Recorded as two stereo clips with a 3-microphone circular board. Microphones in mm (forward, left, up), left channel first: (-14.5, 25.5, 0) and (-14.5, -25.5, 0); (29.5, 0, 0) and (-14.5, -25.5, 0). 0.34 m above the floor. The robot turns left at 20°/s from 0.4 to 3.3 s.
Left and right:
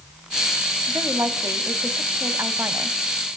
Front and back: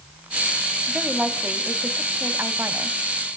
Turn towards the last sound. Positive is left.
turn(degrees=-130)